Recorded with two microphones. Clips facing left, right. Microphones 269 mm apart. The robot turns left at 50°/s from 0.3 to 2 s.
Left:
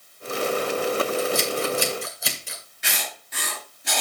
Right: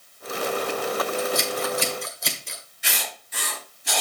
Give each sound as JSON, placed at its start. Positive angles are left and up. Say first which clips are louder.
{"t": 1.2, "sound": "scissors", "louder": "left 2 dB", "side_deg": 40, "distance_m": 1.9}
{"t": 2.8, "sound": "writing", "louder": "even", "side_deg": 65, "distance_m": 5.0}